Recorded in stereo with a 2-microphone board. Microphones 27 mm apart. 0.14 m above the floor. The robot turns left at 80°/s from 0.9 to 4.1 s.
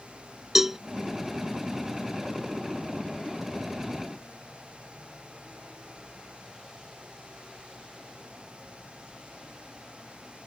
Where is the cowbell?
15° right (ahead or behind).